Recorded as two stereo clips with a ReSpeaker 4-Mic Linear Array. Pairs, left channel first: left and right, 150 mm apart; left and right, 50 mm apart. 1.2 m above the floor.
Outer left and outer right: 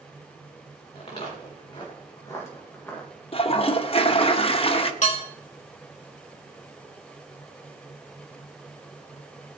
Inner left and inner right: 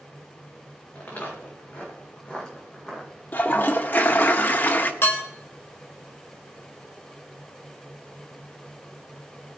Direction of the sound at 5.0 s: 50° left (ahead or behind).